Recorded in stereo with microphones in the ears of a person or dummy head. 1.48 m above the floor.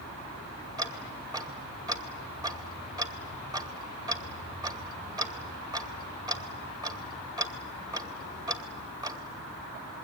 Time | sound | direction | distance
0.8 | ticking | 15° right (ahead or behind) | 2.5 m